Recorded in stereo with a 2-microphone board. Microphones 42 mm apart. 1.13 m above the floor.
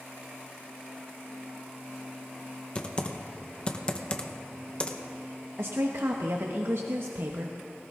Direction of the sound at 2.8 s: 20° left (ahead or behind).